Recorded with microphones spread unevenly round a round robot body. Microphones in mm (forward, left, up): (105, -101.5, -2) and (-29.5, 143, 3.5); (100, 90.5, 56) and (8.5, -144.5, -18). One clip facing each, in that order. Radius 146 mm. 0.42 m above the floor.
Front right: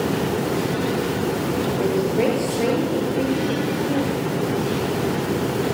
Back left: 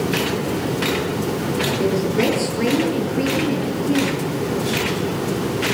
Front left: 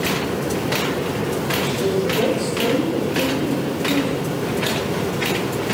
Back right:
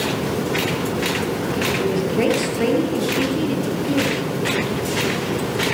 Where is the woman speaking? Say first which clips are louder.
Back left 1 dB, even; 175° right, 8.5 m.